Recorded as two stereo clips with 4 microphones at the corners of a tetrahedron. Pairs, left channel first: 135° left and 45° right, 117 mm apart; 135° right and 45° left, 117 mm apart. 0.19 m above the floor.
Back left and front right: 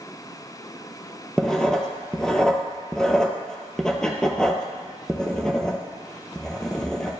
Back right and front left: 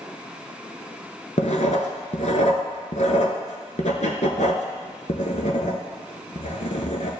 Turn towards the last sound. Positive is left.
turn(degrees=-140)